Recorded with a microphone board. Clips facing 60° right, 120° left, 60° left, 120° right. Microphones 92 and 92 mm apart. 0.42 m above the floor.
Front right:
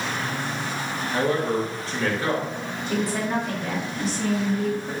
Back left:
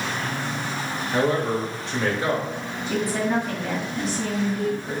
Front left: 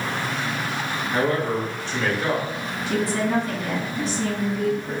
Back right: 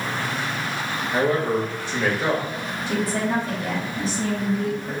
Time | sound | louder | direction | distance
1.1 | a man speaking | back left 1 dB, back right 2 dB | 170° left | 0.9 m
2.9 | a woman speaking | back left 2 dB, front left 1 dB | 150° right | 1.3 m